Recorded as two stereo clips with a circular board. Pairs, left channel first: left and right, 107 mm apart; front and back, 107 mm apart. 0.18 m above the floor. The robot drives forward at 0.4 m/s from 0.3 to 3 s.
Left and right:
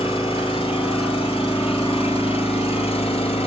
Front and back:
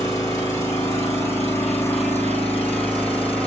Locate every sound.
0.0 s an engine running: 60° left, 3.5 m; by 3.5 s 75° left, 3 m